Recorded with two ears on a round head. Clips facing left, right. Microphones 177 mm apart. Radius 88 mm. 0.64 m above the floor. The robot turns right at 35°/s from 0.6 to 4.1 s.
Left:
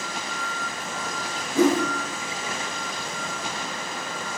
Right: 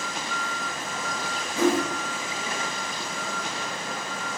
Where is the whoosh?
55° left (ahead or behind), 1.7 m; by 1.8 s 60° left (ahead or behind), 1.7 m.